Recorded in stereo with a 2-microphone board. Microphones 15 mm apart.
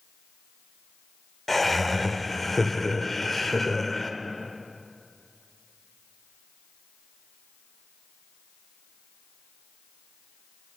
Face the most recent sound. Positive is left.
turn(degrees=10)  # may be behind; listen again after turning